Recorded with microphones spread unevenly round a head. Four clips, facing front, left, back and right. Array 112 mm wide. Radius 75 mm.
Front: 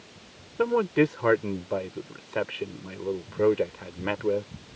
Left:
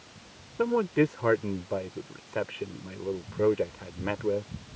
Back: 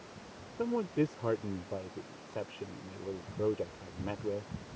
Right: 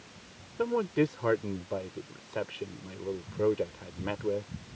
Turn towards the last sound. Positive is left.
turn(degrees=10)